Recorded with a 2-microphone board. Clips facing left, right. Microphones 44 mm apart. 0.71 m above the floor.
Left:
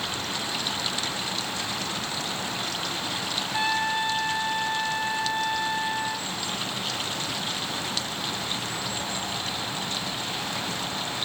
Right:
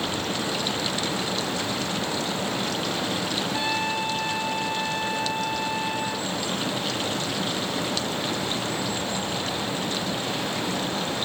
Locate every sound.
3.5 s a trumpet: 25° left (ahead or behind), 1.8 m